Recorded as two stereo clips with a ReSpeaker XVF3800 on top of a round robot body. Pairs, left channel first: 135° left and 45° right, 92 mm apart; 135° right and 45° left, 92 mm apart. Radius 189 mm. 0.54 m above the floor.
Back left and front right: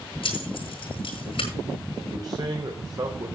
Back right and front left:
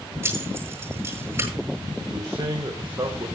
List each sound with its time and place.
0.2 s keys jangling: 110° left, 9 m
2.1 s a man speaking: straight ahead, 3.5 m